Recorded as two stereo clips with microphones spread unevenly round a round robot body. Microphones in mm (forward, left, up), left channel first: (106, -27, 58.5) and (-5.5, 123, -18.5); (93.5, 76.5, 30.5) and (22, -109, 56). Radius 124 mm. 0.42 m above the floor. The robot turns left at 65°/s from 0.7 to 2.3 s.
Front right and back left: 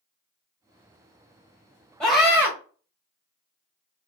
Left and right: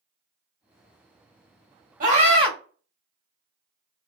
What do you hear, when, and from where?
2.0 s a scream: 155° right, 1.3 m; by 2.5 s 175° right, 1.3 m